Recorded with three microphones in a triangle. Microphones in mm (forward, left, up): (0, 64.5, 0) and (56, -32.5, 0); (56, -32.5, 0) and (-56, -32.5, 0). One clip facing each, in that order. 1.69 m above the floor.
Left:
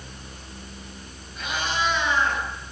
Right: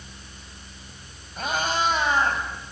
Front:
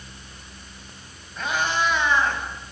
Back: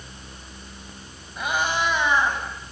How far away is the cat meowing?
About 6 m.